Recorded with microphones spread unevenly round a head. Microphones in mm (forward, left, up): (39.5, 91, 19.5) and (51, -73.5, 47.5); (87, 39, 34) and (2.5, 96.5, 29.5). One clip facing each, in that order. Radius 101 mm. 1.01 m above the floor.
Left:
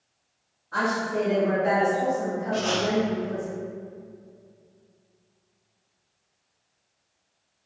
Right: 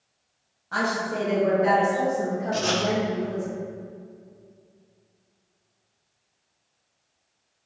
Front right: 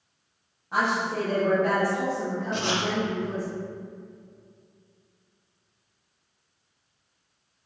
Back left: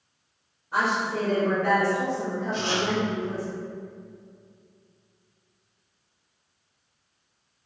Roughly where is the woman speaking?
Right.